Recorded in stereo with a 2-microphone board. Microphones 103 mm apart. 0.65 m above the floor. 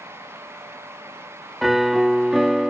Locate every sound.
1.6 s a piano: centre (ahead or behind)